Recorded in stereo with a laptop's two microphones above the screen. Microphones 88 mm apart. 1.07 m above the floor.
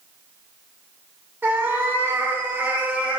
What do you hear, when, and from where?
1.4 s a cat meowing: 20° right (ahead or behind), 0.8 m; by 3.2 s 15° right (ahead or behind), 0.9 m